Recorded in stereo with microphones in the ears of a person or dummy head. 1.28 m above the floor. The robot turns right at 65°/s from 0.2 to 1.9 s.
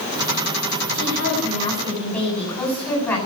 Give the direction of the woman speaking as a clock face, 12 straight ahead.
8 o'clock.